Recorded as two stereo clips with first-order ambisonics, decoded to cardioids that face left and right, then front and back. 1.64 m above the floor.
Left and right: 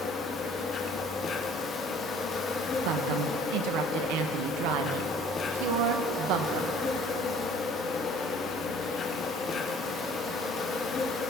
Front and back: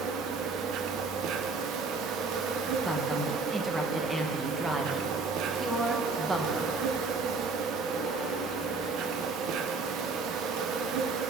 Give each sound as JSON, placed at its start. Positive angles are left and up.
{"t": 0.0, "sound": "an insect", "azimuth_deg": 155, "distance_m": 0.9}
{"t": 2.9, "sound": "a woman speaking", "azimuth_deg": -100, "distance_m": 1.0}